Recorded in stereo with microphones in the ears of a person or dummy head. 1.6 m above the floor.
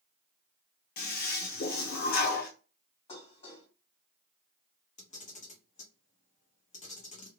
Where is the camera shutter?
40° left (ahead or behind), 0.7 m.